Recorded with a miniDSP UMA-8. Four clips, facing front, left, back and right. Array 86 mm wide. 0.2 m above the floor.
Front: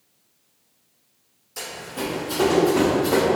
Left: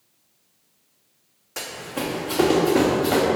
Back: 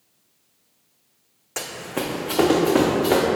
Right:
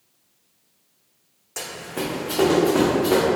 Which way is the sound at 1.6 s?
175° left.